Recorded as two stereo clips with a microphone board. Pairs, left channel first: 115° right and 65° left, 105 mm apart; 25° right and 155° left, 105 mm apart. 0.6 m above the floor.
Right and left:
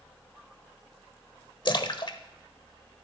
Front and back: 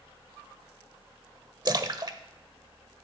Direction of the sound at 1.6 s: 155° right.